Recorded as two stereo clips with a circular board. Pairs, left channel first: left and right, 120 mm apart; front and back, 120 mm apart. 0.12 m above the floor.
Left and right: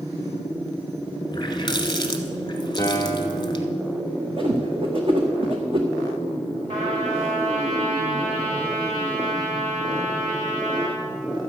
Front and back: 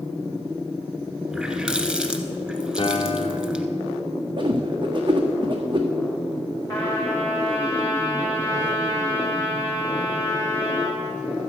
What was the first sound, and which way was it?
A running tap, 100° left.